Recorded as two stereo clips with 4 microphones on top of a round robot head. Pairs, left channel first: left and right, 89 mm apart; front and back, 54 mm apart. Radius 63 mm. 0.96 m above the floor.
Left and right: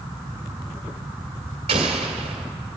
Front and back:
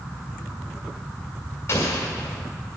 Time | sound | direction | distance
1.7 | an explosion | 60° right | 1.9 m